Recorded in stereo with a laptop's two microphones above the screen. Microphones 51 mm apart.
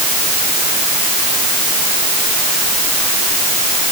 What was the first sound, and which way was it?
Only background noise.